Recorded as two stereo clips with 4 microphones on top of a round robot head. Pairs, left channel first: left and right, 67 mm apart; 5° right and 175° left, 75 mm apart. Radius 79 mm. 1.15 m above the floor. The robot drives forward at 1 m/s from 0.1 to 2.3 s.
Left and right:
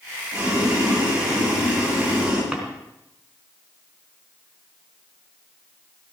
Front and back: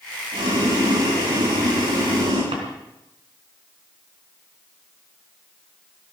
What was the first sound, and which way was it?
Boiling, 165° right.